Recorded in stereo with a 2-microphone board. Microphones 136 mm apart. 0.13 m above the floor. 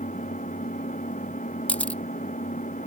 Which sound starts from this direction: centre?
A camera shutter, at 1.7 s.